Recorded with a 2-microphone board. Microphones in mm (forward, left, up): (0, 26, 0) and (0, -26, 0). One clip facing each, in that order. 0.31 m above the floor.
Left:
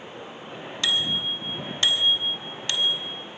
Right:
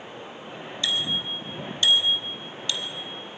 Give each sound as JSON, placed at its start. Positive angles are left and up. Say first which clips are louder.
{"t": 0.8, "sound": "a bicycle bell", "louder": "left 2 dB", "side_deg": 70, "distance_m": 2.5}